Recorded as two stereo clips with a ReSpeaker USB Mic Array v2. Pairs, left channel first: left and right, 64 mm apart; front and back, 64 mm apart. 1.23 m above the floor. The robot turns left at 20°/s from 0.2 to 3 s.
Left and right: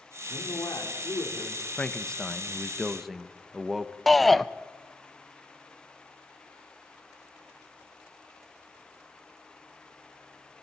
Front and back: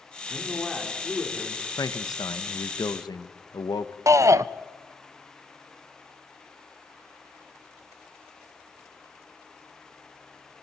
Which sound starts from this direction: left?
A man speaking, at 0.3 s.